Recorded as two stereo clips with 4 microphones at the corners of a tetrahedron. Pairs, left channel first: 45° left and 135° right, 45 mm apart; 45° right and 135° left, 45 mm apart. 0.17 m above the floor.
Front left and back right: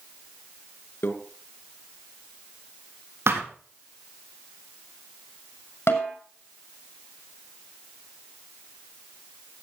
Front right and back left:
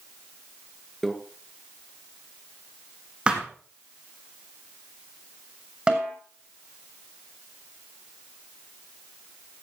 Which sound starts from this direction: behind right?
A thud, at 3.3 s.